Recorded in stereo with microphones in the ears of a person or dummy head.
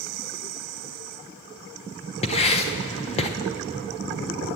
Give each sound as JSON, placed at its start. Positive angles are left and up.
{"t": 2.2, "sound": "writing", "side_deg": 35, "distance_m": 0.7}